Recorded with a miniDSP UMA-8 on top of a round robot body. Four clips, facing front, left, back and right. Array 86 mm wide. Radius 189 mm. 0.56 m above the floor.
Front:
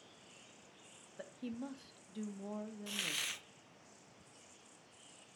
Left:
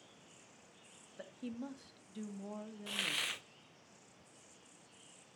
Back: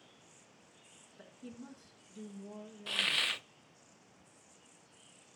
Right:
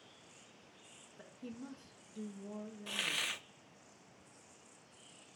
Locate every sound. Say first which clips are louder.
1.2 s a woman speaking: left 4 dB, front 6 dB; 45° left, 1.5 m
2.9 s a hiss: even, back 7 dB; straight behind, 0.5 m